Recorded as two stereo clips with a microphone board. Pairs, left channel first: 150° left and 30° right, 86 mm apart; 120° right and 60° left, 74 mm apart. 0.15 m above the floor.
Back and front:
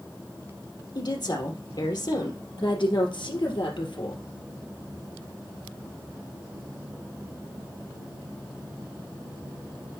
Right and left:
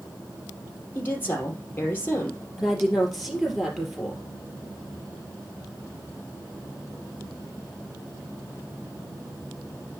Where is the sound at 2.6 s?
150° left, 3 m.